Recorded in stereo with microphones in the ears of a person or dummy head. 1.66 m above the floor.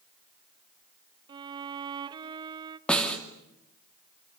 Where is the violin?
20° right (ahead or behind), 0.8 m.